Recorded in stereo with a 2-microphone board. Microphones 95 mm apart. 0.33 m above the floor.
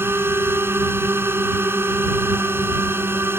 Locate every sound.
0.0 s a drone: 25° right (ahead or behind)